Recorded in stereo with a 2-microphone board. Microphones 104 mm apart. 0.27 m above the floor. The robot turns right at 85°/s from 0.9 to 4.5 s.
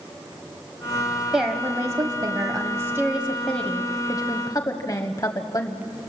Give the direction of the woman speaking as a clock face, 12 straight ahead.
6 o'clock.